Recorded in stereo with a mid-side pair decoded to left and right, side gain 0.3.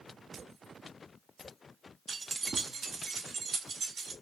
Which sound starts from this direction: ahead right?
Keys jangling, at 2.1 s.